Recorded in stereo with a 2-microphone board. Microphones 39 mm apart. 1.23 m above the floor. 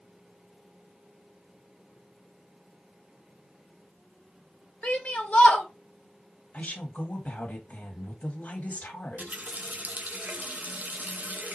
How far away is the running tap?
About 0.6 m.